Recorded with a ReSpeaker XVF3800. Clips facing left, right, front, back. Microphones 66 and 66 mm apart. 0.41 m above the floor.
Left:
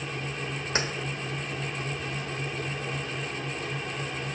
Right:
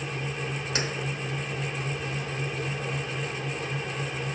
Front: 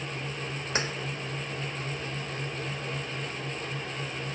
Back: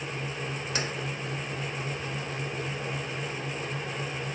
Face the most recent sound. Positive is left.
turn(degrees=45)